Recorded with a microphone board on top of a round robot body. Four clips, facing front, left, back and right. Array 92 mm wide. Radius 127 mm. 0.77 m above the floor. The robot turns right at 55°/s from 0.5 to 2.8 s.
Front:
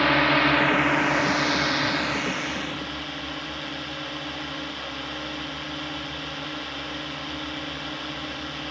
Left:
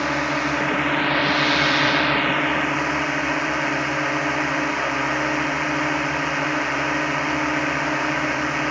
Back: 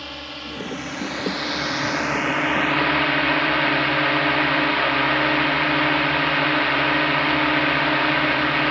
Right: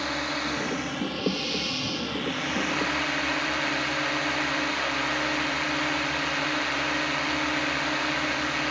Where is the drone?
25° left; by 8.7 s 155° left.